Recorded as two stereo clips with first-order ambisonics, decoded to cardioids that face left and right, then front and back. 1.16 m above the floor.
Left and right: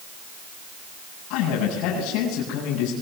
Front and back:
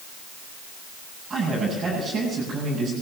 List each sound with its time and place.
1.3 s a man speaking: 110° left, 8.5 m